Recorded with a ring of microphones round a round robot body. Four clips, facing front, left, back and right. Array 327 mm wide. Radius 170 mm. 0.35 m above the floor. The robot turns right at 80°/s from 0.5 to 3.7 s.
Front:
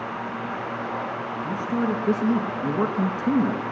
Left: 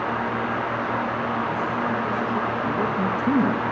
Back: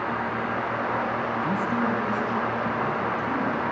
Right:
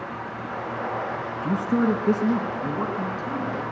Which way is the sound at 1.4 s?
120° right.